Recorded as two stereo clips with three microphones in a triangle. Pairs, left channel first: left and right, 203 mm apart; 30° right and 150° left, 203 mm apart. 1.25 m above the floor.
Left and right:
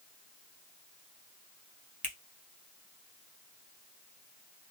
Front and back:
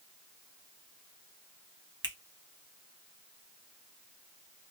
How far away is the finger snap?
About 0.8 m.